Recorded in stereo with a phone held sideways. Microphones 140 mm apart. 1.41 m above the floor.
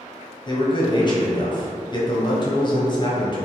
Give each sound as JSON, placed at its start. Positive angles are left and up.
{"t": 0.5, "sound": "a man speaking", "side_deg": 30, "distance_m": 0.9}